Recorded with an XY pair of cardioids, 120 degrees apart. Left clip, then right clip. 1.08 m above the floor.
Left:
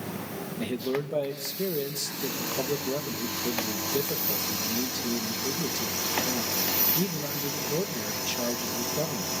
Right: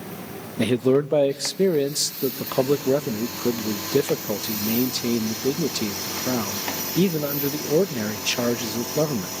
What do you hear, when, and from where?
0.6 s a man speaking: 60° right, 0.7 m